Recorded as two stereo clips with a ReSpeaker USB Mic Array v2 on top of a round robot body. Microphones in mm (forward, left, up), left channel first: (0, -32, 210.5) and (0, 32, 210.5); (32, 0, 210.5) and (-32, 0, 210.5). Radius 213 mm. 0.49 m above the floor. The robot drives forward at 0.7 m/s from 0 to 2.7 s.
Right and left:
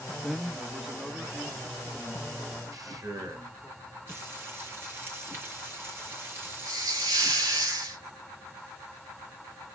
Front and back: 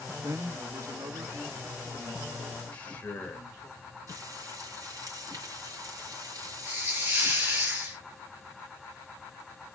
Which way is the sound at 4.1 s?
150° left.